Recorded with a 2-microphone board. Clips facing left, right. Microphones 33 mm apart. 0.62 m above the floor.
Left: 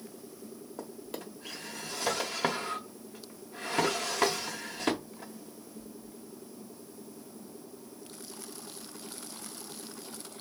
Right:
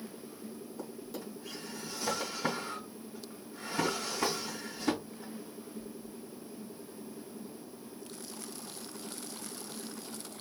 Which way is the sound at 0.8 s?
65° left (ahead or behind).